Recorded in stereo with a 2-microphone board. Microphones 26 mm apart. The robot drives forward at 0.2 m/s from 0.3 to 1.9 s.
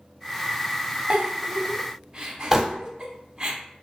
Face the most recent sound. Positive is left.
turn(degrees=-15)  # may be behind; listen again after turning